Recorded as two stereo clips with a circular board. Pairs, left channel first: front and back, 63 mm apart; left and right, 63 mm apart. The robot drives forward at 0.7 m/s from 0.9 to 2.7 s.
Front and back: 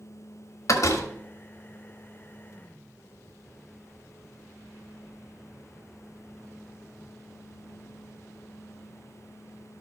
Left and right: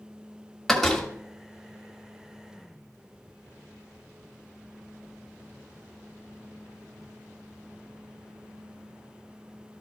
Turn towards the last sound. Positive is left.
turn(degrees=65)